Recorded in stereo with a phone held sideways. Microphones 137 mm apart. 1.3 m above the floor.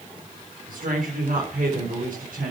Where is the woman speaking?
80° right, 5.5 m.